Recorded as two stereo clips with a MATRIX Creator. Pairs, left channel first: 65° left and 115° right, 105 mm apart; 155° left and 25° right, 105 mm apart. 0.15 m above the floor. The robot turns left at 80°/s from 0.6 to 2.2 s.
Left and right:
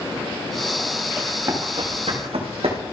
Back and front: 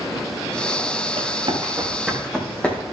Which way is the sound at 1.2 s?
30° right.